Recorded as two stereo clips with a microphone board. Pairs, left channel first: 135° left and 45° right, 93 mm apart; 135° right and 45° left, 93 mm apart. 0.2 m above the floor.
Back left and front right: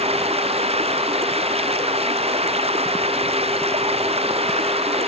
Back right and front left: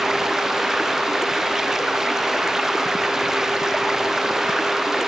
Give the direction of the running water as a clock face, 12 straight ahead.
1 o'clock.